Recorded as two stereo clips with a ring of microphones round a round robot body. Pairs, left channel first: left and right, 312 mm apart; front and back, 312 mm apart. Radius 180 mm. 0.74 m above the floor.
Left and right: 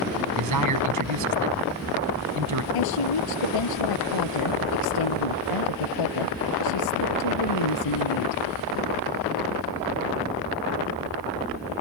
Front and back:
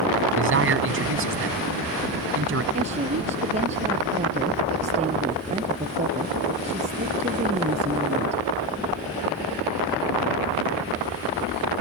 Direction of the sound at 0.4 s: 130° right.